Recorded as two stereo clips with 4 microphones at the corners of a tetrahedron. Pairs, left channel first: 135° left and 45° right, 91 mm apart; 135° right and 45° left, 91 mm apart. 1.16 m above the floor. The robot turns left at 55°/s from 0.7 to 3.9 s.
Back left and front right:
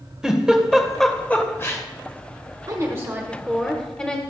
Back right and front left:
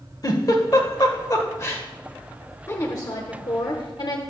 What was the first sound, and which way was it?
A giggle, 125° right.